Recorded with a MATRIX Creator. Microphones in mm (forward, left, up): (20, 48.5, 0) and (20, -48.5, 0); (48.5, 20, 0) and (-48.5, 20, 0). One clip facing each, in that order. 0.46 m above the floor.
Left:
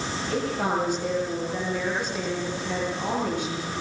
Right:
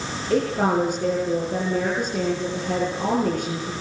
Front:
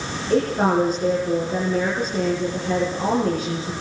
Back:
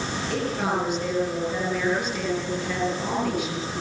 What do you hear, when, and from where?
0.3 s a woman speaking: 55° right, 8 m